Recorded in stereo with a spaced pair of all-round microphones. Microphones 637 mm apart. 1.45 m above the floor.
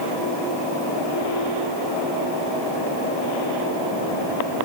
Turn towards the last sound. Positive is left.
No sound to turn to.